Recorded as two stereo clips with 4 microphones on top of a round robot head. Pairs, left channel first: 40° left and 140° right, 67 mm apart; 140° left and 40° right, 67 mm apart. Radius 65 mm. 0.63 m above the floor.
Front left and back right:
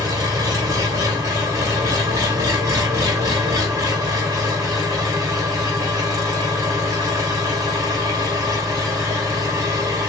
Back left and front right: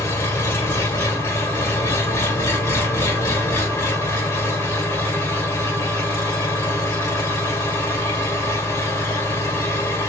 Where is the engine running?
175° right, 2.5 m.